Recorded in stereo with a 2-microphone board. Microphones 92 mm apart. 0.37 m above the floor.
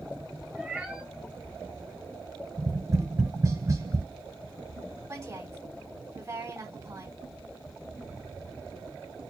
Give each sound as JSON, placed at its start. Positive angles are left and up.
{"t": 0.6, "sound": "a cat meowing", "side_deg": -10, "distance_m": 0.8}
{"t": 2.6, "sound": "tapping", "side_deg": -40, "distance_m": 1.2}
{"t": 5.1, "sound": "a woman speaking", "side_deg": -35, "distance_m": 2.0}